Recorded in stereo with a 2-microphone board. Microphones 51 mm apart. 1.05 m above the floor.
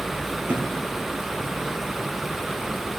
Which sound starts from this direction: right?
A thud, at 0.5 s.